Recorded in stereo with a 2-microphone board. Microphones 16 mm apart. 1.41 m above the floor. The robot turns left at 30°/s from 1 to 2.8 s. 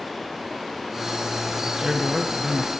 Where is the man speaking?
40° right, 1.3 m; by 2.7 s 70° right, 1.3 m.